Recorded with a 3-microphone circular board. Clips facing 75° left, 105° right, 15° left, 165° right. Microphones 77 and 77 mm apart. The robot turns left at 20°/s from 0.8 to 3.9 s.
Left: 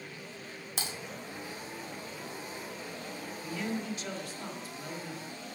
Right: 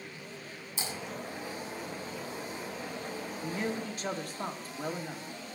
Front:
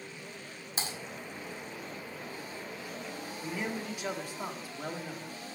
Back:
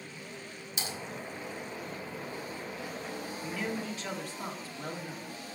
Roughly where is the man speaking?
Ahead right.